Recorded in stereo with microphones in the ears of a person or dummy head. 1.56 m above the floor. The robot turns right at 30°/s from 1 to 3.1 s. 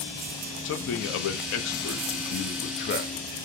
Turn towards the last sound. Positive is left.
turn(degrees=135)